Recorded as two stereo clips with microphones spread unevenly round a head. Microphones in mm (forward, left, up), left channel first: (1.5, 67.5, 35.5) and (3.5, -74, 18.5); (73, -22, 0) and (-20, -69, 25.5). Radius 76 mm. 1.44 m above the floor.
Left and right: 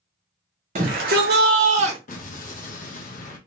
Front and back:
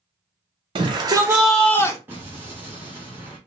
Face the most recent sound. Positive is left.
turn(degrees=125)